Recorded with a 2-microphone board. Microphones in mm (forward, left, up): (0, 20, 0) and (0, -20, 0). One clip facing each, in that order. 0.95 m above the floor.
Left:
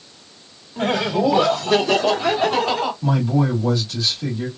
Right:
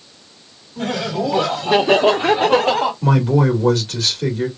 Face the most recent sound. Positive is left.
turn(degrees=-50)  # may be behind; listen again after turning